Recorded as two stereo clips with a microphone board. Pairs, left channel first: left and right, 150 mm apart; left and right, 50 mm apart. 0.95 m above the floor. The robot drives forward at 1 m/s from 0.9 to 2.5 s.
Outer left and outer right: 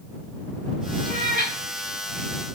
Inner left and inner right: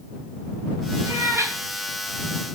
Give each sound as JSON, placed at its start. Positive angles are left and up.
{"t": 1.1, "sound": "a cat meowing", "side_deg": -80, "distance_m": 4.5}